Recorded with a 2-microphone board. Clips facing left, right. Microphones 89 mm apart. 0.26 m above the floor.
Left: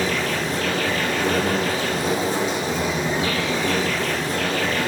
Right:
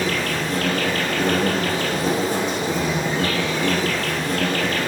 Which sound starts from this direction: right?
An insect, at 0.0 s.